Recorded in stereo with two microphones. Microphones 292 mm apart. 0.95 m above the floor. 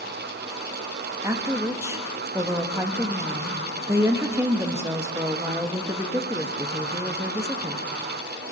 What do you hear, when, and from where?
1.2 s a woman speaking: 10° right (ahead or behind), 1.3 m